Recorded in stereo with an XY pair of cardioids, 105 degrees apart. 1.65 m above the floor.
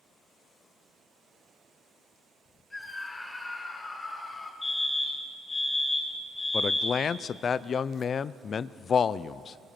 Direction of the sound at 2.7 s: 20° left.